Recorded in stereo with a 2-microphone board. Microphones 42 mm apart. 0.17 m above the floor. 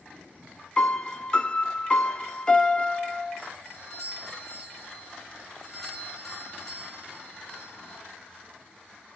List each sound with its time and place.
0.8 s a piano: 20° left (ahead or behind), 0.6 m
3.6 s a doorbell: 10° left (ahead or behind), 3.5 m